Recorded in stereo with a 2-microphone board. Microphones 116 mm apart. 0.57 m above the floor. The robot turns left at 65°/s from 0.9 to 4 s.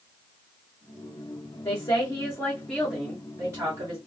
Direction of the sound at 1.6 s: 75° left.